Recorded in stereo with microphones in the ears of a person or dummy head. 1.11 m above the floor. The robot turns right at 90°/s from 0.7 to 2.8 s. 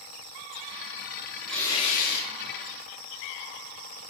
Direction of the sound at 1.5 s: 5° right.